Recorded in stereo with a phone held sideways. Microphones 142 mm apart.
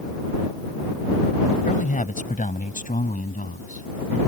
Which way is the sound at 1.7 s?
65° left (ahead or behind).